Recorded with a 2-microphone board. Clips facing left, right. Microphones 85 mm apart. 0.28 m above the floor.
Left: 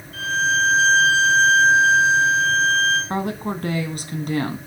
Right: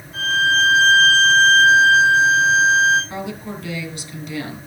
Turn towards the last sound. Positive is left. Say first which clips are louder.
# left 4 dB
turn(degrees=45)  # may be behind; listen again after turning